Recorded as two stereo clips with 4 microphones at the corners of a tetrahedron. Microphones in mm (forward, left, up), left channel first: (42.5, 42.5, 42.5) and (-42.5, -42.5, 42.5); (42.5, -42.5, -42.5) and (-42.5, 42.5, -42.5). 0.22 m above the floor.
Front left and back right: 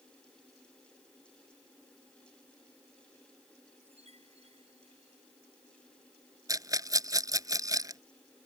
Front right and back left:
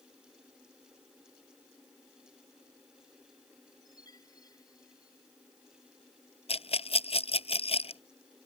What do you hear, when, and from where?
3.8 s a chime: 105° right
6.5 s a rattle: 75° right